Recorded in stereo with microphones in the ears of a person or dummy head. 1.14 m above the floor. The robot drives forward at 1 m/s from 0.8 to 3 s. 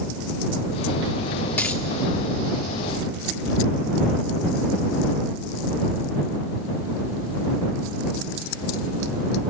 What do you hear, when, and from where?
1.6 s a dropped coin: 5° left (ahead or behind), 1.3 m